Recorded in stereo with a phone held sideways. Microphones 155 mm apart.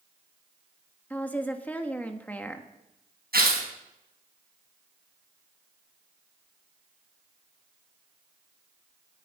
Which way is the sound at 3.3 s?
85° right.